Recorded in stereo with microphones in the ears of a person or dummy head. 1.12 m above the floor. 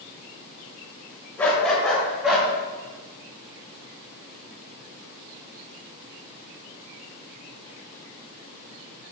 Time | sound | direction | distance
1.4 | a dog barking | 5° left (ahead or behind) | 2.5 m